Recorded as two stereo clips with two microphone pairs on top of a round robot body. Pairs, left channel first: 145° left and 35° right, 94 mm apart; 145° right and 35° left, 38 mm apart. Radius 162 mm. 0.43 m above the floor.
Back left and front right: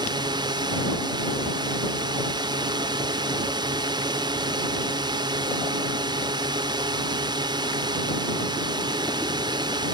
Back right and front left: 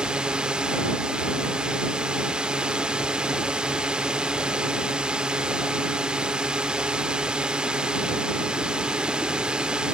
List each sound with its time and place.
0.0 s a drone: 20° right